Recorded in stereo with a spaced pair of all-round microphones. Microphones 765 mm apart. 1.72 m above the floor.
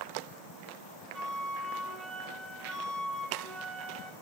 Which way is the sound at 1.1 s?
Centre (ahead or behind).